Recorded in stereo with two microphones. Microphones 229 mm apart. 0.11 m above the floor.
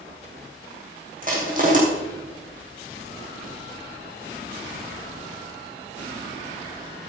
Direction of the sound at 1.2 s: 40° right (ahead or behind).